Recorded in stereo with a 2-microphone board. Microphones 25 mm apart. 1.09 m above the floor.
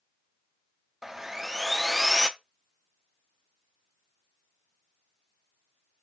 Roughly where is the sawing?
Centre.